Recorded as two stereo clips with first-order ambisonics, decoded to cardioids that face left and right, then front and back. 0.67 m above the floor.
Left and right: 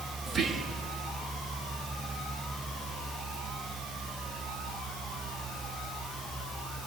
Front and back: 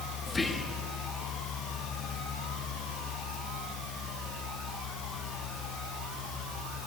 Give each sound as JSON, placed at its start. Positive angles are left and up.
{"t": 0.3, "sound": "whispering", "azimuth_deg": -60, "distance_m": 1.2}